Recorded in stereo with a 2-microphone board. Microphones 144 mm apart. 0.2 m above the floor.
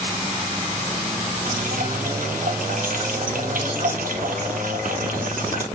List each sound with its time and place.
1.4 s dripping: 85° right, 1.3 m